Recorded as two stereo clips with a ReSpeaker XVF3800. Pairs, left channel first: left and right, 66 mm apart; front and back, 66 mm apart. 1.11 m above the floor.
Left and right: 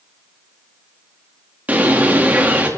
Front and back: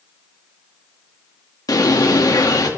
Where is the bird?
20° right, 2 m.